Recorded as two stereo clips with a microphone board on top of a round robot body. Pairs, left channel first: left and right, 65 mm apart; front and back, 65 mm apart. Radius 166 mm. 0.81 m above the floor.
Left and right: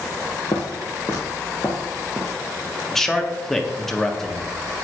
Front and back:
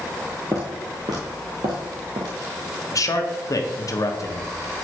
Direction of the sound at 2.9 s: 5° left.